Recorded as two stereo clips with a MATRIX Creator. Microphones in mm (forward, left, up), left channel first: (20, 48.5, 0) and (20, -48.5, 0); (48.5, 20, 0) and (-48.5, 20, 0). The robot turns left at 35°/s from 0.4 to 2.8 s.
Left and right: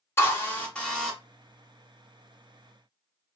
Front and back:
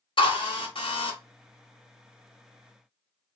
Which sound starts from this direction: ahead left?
A drill, at 0.2 s.